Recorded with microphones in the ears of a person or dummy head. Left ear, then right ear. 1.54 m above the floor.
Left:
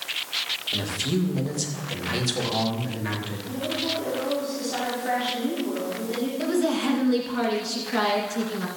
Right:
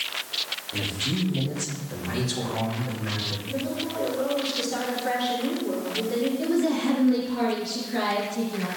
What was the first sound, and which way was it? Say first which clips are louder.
A man speaking: left 1 dB; 75° left (ahead or behind).